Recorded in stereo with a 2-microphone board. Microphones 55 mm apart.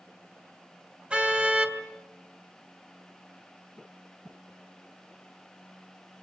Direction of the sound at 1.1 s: 20° right (ahead or behind).